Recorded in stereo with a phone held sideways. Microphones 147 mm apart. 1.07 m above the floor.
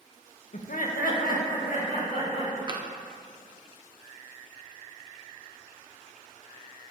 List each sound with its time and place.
0.5 s laughter: 55° left (ahead or behind), 0.6 m; by 2.6 s 60° left (ahead or behind), 2.5 m
2.7 s tapping: 30° right (ahead or behind), 0.5 m